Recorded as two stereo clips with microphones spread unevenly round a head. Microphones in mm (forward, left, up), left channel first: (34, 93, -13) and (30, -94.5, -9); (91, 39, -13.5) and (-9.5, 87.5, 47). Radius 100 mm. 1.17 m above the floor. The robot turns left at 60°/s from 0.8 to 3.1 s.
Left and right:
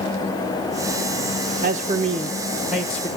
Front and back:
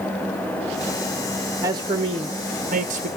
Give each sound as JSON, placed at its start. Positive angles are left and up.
{"t": 1.6, "sound": "a man speaking", "azimuth_deg": -110, "distance_m": 0.7}